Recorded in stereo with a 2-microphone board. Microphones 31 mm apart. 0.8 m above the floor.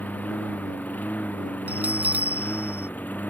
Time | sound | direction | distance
0.0 | a lawn mower | 70° left (ahead or behind) | ?
1.7 | a bell | 60° right (ahead or behind) | ?